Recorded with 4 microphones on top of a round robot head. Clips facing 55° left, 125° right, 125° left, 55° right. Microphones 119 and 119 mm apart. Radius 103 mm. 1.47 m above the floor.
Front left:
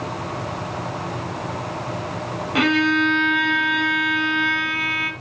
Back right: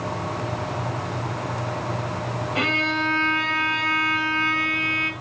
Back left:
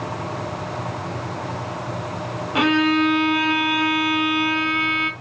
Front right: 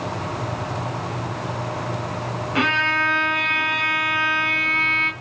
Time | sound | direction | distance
2.5 | a violin | 50° left | 2.5 m